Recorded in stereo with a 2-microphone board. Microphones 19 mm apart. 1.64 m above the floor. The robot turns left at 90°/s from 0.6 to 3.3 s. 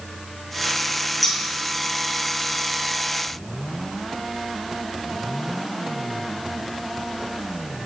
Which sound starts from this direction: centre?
Scissors, at 1.2 s.